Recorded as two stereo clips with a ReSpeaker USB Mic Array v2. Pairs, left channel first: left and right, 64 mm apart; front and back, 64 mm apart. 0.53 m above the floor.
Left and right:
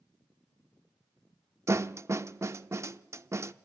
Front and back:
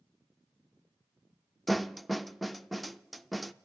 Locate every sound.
1.7 s a snare drum: 90° right, 0.5 m